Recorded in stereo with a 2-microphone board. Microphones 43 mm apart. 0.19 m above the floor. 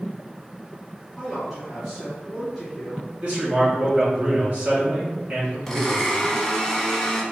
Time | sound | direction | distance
1.2 | a man speaking | 5° right (ahead or behind) | 1.6 m
3.2 | a man speaking | 30° right (ahead or behind) | 1.7 m
5.7 | a blender | 10° left (ahead or behind) | 0.9 m